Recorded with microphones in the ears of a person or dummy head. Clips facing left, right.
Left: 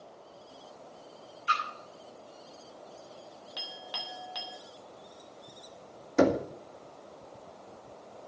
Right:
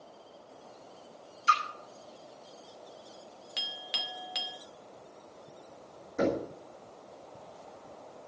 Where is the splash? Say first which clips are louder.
Right 3 dB; 55° right (ahead or behind), 6 m.